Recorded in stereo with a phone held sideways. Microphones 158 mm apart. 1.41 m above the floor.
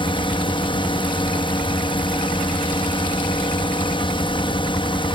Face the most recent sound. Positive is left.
turn(degrees=35)  # may be behind; listen again after turning